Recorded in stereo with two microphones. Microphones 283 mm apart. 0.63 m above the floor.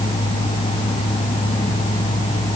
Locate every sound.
Only background noise.